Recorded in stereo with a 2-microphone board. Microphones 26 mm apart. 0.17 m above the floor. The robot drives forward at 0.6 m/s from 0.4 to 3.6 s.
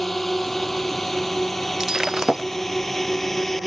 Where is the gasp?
I don't hear a gasp.